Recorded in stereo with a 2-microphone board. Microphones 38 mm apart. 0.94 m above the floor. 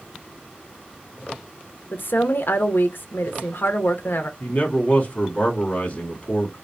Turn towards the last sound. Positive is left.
turn(degrees=40)  # may be behind; listen again after turning